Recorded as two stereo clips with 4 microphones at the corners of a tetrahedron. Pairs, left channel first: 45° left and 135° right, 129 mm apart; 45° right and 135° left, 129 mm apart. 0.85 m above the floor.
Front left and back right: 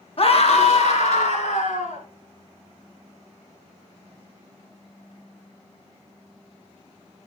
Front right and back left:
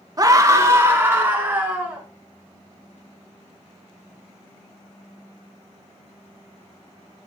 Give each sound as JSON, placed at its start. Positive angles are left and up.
{"t": 0.2, "sound": "a scream", "azimuth_deg": 80, "distance_m": 1.6}